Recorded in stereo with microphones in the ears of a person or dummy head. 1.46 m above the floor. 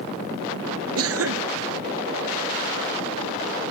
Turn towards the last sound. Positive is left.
turn(degrees=-70)  # may be behind; listen again after turning